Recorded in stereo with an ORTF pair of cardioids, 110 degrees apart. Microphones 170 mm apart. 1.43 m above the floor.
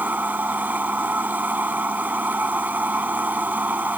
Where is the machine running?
10° right.